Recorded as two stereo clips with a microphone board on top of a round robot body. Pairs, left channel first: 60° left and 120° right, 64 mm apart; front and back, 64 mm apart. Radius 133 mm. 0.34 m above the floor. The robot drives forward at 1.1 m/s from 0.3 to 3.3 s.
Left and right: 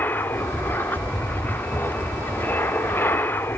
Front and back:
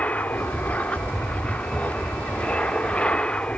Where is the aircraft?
45° left; by 3.6 s 60° left.